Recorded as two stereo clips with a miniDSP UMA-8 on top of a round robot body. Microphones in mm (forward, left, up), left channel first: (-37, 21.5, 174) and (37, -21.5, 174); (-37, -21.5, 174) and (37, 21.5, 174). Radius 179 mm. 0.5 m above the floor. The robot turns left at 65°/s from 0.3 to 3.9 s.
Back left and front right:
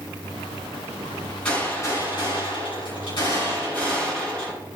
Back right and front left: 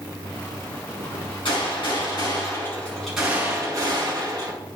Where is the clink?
No clink in this recording.